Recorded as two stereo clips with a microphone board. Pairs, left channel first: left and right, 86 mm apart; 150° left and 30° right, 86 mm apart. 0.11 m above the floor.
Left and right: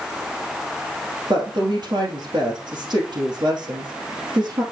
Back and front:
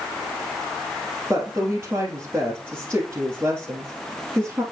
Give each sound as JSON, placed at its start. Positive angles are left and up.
{"t": 1.3, "sound": "a woman speaking", "azimuth_deg": -90, "distance_m": 2.5}